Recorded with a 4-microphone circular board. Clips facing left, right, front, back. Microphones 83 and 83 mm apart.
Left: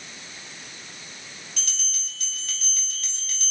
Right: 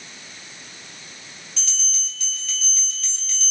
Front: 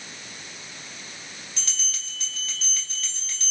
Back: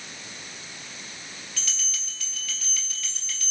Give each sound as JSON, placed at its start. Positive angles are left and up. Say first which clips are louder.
{"t": 1.6, "sound": "a bell", "louder": "even, even", "azimuth_deg": 60, "distance_m": 3.5}